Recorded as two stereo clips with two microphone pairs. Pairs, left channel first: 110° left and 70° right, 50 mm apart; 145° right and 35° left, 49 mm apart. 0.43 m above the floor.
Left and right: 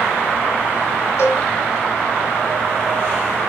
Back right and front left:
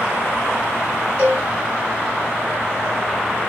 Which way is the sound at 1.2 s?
95° left.